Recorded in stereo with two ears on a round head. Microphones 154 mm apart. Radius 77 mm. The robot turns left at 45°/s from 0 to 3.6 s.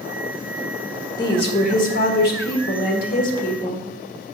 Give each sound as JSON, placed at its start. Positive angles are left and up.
{"t": 1.2, "sound": "a woman speaking", "azimuth_deg": 155, "distance_m": 1.5}